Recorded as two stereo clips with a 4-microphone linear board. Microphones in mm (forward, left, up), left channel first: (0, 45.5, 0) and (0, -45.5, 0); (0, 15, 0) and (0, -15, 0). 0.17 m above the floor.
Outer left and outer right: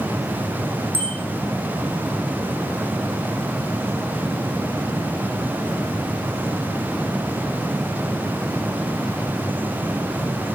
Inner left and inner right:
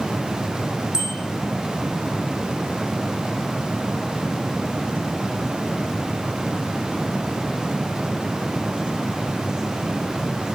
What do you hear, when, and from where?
0.9 s a bicycle bell: 20° right (ahead or behind), 6 m